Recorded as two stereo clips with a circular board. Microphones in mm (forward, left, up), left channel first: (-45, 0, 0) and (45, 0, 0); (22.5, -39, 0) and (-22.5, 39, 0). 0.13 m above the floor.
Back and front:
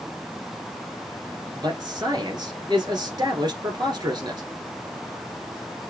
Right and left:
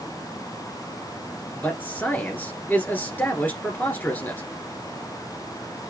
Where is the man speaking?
5° left, 1.6 m.